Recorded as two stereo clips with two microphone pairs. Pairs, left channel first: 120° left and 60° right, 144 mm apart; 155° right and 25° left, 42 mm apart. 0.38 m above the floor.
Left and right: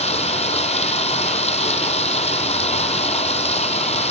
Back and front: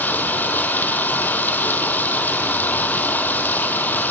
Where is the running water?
160° left, 2 m.